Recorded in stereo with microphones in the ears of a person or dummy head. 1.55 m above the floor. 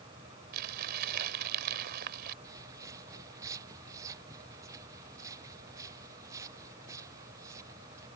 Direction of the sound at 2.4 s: 20° right (ahead or behind).